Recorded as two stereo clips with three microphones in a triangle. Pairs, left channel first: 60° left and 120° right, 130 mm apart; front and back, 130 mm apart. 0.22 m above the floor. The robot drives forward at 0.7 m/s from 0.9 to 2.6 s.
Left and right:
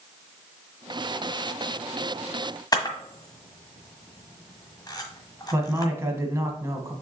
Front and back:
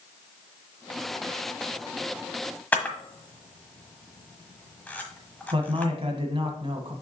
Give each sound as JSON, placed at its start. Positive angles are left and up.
{"t": 2.7, "sound": "a camera shutter", "azimuth_deg": 65, "distance_m": 1.2}
{"t": 5.5, "sound": "a man speaking", "azimuth_deg": 180, "distance_m": 1.3}